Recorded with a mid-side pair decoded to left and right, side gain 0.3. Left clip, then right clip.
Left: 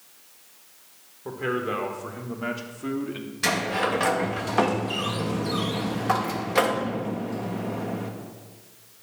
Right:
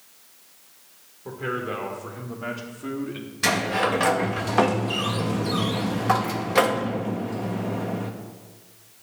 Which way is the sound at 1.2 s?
30° left.